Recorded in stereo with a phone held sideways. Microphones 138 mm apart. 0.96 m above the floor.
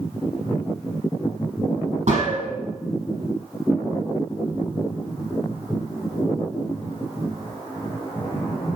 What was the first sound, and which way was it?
A gunshot, 65° right (ahead or behind).